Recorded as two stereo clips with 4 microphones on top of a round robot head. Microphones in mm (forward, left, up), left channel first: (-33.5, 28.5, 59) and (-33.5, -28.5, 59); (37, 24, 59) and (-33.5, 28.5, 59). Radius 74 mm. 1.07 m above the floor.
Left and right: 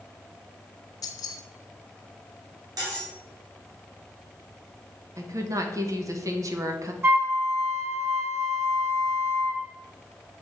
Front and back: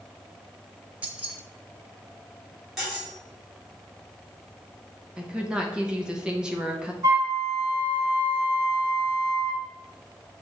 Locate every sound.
1.0 s keys jangling: 105° left, 1.1 m
2.8 s cutlery clinking: 100° right, 3.5 m
5.2 s a woman speaking: 110° right, 1.3 m
7.0 s a flute: 135° right, 4 m